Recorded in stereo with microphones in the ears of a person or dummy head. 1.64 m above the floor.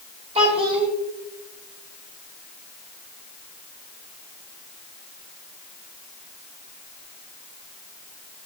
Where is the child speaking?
30° right (ahead or behind), 1.8 m.